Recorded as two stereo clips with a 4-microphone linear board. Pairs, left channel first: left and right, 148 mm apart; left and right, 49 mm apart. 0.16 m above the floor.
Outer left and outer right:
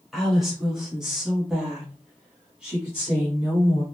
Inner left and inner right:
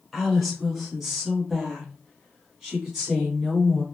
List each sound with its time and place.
0.1 s a woman speaking: centre (ahead or behind), 1.6 m; by 3.8 s 5° right (ahead or behind), 1.6 m